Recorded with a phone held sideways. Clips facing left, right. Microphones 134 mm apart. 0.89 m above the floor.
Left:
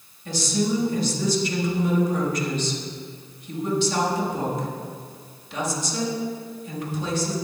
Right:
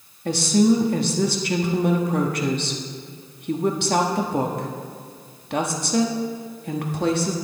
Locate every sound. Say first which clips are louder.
0.2 s a woman speaking: right 7 dB; 60° right (ahead or behind), 1.5 m